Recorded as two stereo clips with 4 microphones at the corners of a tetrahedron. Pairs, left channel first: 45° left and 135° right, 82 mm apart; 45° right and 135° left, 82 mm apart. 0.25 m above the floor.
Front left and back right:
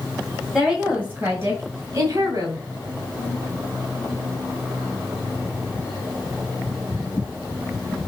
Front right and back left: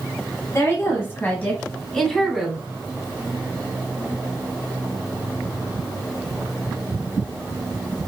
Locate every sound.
0.5 s a woman speaking: 60° right, 1.4 m; by 2.6 s 145° right, 1.6 m